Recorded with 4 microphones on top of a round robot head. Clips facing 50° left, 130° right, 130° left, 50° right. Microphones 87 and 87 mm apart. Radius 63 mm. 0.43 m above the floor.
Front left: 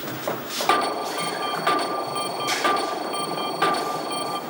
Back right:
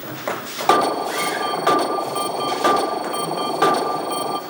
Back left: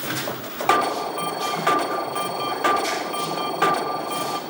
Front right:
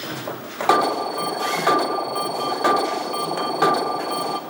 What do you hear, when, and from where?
0.7 s an alarm: 105° right, 1.0 m